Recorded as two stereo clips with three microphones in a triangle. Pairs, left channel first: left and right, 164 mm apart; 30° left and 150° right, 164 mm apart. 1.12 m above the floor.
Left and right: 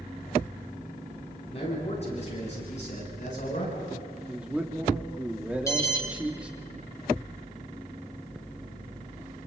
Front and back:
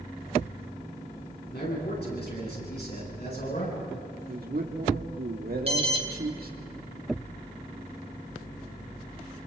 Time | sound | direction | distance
1.5 | a man speaking | 40° left | 10 m
4.3 | a man speaking | 175° right | 2.5 m
5.7 | an alarm | 160° left | 2.5 m